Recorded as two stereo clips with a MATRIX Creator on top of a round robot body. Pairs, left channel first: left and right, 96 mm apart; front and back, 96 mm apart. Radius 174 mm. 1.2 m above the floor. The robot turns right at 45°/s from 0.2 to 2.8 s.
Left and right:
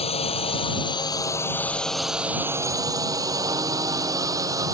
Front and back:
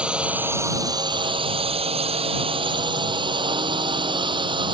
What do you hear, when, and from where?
0.0 s a drone: 100° left; by 4.8 s 145° right